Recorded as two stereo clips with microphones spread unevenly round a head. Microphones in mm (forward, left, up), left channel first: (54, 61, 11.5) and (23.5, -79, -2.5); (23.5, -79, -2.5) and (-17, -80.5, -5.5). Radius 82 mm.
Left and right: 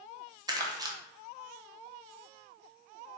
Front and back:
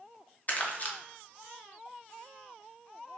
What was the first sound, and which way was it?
Crumpling, 45° right.